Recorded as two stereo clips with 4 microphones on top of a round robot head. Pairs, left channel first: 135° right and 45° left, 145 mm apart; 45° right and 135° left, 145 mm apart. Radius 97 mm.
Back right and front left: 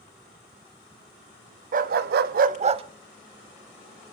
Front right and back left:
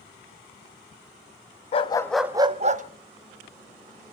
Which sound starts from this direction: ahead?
A dog barking, at 1.7 s.